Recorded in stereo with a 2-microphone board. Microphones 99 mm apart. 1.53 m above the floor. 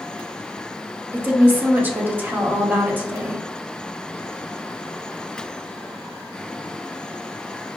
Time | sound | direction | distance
1.1 | a woman speaking | 20° right (ahead or behind) | 0.9 m